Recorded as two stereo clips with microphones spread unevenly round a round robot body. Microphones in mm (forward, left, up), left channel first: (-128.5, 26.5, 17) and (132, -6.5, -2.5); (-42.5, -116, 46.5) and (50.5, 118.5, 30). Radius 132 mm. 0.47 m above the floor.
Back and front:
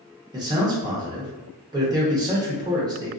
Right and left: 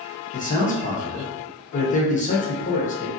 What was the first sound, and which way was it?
A man speaking, 65° right.